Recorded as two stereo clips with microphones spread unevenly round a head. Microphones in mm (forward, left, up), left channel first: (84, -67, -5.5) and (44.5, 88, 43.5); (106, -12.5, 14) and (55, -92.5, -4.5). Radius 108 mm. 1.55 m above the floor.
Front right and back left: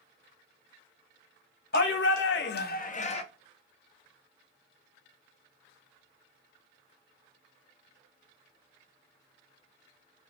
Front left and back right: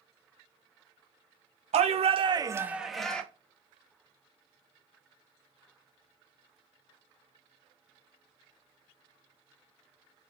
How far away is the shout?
About 0.9 m.